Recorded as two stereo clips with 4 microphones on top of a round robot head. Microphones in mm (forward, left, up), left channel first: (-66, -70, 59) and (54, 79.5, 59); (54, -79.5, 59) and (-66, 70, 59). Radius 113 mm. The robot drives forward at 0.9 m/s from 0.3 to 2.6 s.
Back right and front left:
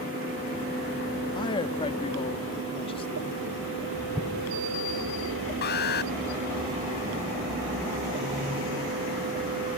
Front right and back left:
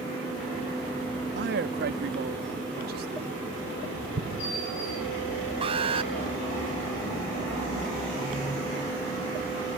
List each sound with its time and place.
1.4 s a man speaking: 165° left; by 3.3 s 170° left
4.2 s an explosion: 130° left
5.6 s an alarm: 170° right